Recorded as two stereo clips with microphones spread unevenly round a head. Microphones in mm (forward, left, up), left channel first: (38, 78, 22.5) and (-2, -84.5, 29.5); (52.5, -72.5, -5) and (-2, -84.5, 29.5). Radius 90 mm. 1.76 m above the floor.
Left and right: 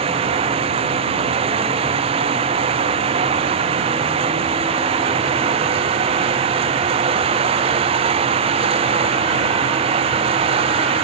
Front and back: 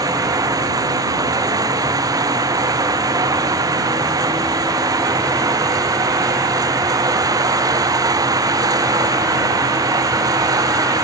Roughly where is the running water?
Behind.